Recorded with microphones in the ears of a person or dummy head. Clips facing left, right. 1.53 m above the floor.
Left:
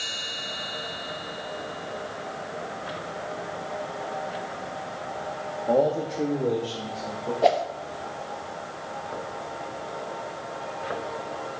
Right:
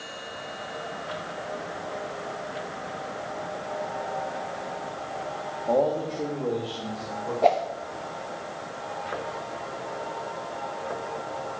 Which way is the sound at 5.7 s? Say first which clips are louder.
Left 1 dB; 15° left (ahead or behind).